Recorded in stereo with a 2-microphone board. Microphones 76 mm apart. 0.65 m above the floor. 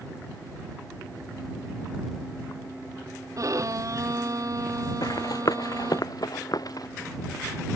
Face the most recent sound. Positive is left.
turn(degrees=60)  # may be behind; listen again after turning